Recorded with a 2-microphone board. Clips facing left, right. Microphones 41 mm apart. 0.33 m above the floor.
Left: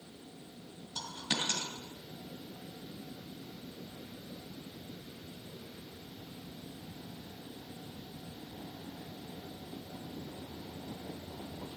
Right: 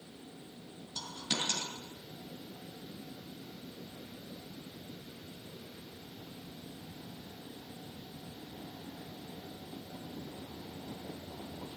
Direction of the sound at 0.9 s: 15° left (ahead or behind).